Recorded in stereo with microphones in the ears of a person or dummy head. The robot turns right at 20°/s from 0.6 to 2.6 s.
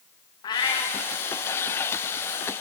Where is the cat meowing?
30° left (ahead or behind), 3 m; by 0.9 s 20° left (ahead or behind), 3 m.